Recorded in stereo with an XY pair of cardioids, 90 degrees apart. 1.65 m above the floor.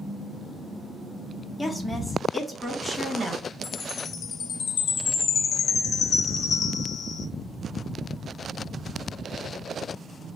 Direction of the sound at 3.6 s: 60° left.